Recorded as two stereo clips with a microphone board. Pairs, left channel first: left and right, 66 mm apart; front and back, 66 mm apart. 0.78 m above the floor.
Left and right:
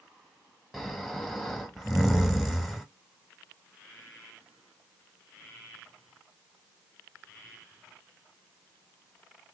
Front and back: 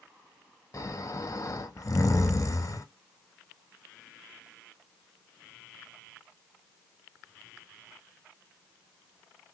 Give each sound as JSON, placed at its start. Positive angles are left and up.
{"t": 0.7, "sound": "snoring", "azimuth_deg": 0, "distance_m": 0.8}